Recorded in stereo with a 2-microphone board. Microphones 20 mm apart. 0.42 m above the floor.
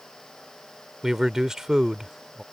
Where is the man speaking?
30° right (ahead or behind).